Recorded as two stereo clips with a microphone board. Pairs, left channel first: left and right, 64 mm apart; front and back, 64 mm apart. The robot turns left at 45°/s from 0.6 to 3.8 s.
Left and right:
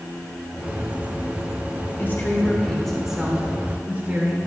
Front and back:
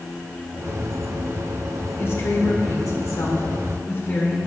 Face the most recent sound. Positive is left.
turn(degrees=-40)